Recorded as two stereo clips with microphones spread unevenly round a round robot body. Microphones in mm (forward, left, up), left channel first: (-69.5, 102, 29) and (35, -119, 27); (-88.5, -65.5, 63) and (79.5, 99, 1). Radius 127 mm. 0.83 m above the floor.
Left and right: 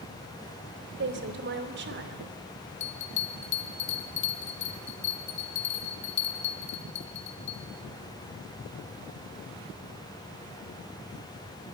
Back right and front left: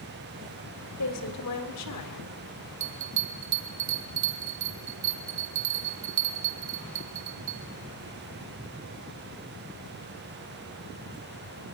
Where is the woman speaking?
110° right, 2.5 m.